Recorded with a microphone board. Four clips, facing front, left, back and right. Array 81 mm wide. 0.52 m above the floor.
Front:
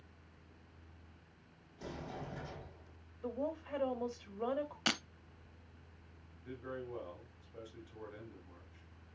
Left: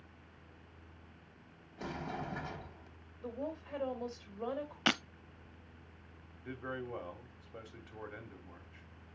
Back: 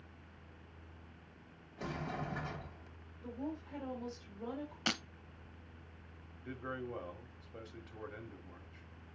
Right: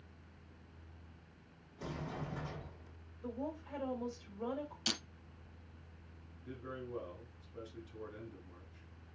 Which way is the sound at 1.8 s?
140° left.